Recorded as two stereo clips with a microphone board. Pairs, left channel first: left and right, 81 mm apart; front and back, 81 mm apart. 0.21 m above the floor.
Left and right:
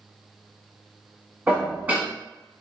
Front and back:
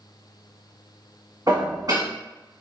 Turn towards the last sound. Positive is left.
turn(degrees=-155)